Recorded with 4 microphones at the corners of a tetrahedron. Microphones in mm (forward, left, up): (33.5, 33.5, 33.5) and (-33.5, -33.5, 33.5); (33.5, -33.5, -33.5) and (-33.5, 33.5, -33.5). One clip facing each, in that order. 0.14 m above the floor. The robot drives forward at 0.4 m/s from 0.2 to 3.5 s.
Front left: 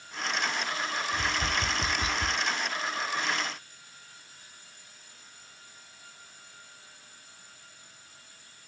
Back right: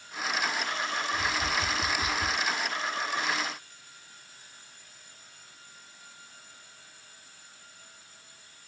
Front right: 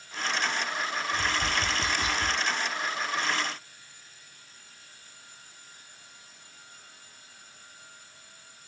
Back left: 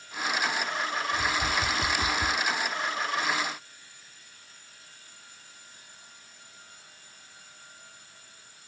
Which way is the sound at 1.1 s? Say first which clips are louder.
Even, even; 50° left.